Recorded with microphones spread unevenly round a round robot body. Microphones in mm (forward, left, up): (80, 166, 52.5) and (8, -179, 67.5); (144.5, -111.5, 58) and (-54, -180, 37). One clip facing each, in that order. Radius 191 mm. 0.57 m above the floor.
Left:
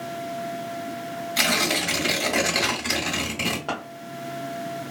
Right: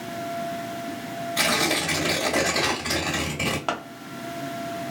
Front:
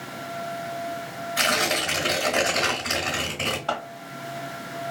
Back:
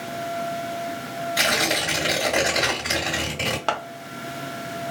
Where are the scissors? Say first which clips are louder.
Right 1 dB, back 2 dB; 170° right, 0.5 m.